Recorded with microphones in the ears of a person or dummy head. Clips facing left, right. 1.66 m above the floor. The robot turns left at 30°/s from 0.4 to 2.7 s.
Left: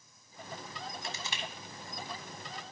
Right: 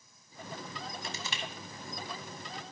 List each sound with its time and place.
1.0 s crushing: 65° right (ahead or behind), 1.1 m; by 1.4 s 50° right (ahead or behind), 1.1 m